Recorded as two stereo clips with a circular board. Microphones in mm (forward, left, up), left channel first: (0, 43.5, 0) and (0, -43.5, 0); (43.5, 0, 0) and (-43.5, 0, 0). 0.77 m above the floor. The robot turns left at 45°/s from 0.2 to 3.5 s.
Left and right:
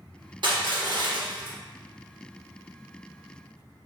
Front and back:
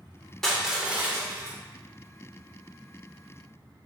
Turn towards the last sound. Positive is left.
turn(degrees=140)